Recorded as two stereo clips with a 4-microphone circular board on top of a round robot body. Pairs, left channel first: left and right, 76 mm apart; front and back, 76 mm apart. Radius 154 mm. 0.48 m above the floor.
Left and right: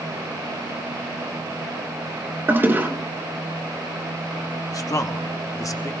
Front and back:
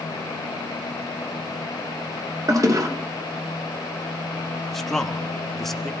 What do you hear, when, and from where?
2.5 s a toilet flushing: 150° right, 2 m
4.7 s a man speaking: 85° left, 1.5 m